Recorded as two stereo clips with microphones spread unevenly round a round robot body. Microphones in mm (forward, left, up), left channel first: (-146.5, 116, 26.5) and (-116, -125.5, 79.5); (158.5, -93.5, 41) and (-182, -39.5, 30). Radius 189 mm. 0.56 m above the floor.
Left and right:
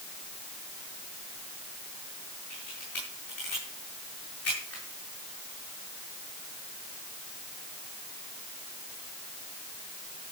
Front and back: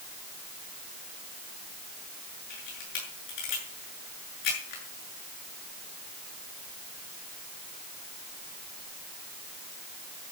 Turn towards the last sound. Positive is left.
turn(degrees=10)